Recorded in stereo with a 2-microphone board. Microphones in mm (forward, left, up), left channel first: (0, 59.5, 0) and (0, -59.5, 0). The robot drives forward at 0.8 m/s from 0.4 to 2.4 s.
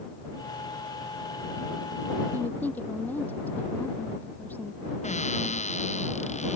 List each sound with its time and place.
2.3 s a woman speaking: 15° left (ahead or behind)
5.0 s a cupboard door: 80° left